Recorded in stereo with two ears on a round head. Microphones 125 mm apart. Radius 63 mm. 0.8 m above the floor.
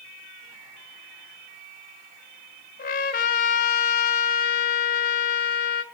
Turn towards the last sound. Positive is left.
turn(degrees=75)  # may be behind; listen again after turning